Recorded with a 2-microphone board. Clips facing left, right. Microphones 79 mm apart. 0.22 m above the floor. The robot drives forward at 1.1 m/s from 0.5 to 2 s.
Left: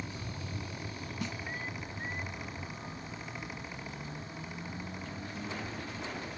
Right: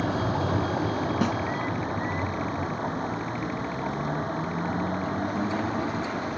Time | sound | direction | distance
0.0 | a vehicle | 70° right (ahead or behind) | ?
1.2 | a snare drum | 70° right (ahead or behind) | ?